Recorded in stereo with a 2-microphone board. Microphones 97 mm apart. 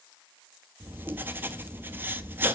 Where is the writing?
25° right (ahead or behind), 0.7 m.